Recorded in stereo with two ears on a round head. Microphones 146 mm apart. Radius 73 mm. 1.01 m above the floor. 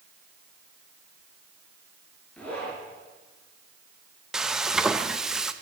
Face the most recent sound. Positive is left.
turn(degrees=-5)  # may be behind; listen again after turning